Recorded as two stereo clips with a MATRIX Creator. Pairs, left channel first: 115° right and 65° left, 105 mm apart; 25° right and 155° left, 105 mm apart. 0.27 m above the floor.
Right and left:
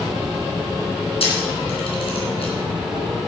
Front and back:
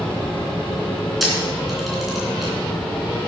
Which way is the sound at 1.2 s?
115° right.